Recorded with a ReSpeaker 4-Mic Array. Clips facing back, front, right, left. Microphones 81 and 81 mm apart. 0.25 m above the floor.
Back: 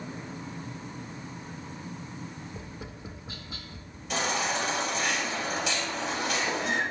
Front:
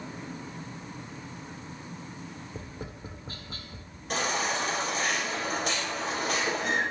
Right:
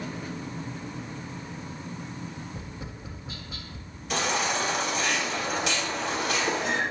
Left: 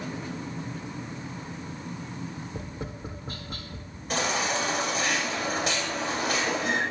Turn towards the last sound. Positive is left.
turn(degrees=40)